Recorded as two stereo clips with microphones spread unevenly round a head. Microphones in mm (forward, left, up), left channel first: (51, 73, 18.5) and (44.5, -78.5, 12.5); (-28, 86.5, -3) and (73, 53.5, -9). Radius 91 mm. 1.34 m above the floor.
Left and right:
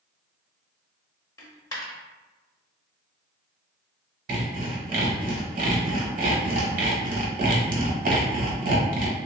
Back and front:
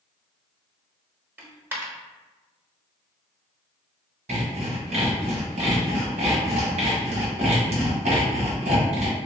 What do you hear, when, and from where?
1.4 s a dropped coin: 40° left, 0.8 m
4.3 s sawing: 65° right, 0.8 m